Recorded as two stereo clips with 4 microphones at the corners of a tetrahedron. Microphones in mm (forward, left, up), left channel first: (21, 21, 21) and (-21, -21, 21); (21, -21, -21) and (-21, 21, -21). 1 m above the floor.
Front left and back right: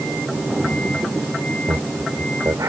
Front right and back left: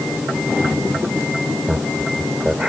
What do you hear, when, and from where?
1.7 s laughter: 150° right